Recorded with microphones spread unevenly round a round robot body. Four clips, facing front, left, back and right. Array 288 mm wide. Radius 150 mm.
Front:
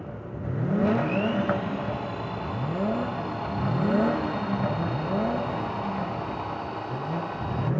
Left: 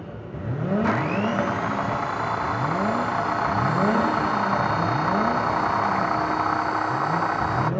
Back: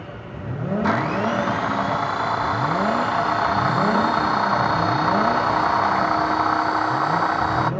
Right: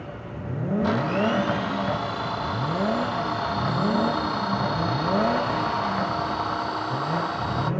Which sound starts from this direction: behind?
A blender, at 0.8 s.